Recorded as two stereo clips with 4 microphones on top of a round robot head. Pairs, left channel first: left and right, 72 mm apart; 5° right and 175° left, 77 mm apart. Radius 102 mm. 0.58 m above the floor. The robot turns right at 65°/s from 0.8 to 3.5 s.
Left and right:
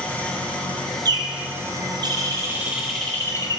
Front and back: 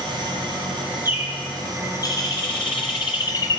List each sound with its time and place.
0.0 s an engine running: 160° left, 2.5 m; by 3.6 s 20° right, 2.5 m
1.1 s a bird: 120° right, 1.1 m; by 3.6 s 40° left, 1.1 m